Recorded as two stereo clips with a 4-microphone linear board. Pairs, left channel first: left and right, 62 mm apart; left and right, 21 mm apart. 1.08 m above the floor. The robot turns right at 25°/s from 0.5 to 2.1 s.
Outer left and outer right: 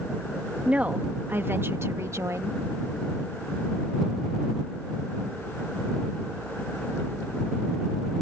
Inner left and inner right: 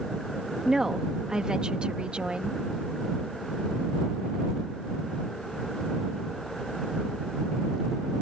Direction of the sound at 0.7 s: 160° right.